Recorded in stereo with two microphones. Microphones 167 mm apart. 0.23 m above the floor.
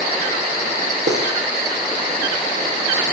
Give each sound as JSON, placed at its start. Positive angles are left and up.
{"t": 1.1, "sound": "cutlery clinking", "side_deg": -80, "distance_m": 5.5}